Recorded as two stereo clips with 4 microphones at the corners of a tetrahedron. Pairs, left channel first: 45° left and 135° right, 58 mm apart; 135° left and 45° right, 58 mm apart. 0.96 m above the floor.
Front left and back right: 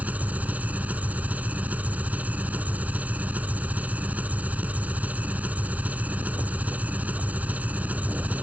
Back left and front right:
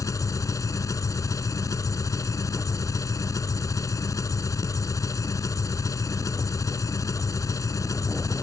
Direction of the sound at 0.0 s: 160° left.